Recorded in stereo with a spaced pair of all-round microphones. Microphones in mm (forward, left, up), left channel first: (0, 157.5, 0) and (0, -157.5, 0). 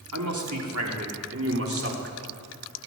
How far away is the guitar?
No guitar in this recording.